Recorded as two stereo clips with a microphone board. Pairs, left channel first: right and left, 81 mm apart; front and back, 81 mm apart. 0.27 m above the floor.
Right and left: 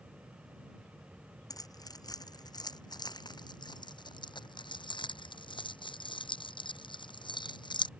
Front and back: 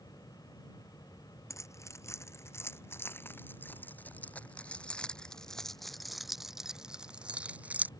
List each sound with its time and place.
1.5 s keys jangling: 50° right; by 7.9 s 110° right